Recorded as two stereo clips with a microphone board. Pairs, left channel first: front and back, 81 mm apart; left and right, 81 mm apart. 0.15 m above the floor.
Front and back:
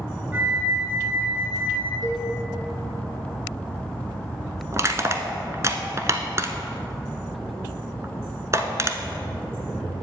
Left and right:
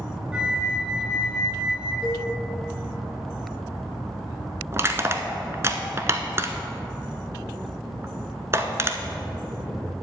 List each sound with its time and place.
0.3 s a flute: 150° right, 1.1 m
2.0 s a cowbell: 170° right, 2.5 m
4.7 s crushing: 140° right, 0.7 m